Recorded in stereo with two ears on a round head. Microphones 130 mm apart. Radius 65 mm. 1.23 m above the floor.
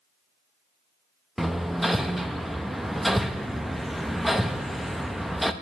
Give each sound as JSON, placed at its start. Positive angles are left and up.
{"t": 1.4, "sound": "hammering", "side_deg": 0, "distance_m": 0.5}